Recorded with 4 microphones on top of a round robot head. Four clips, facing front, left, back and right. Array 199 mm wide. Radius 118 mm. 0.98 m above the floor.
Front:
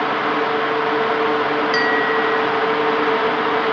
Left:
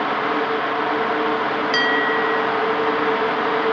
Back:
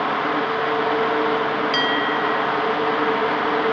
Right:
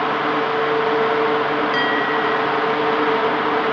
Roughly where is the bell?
Left.